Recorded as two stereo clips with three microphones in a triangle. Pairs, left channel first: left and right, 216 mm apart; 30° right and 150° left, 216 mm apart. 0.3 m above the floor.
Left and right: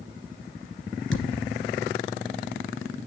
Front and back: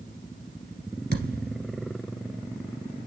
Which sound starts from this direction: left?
A thud, at 1.1 s.